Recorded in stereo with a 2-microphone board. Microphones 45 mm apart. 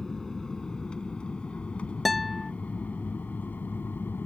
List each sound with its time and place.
0.0 s an aircraft: 10° left (ahead or behind); by 4.3 s 45° left (ahead or behind)
2.0 s a guitar: centre (ahead or behind)